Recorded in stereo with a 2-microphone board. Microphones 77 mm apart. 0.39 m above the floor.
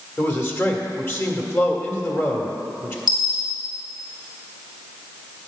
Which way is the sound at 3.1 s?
85° left.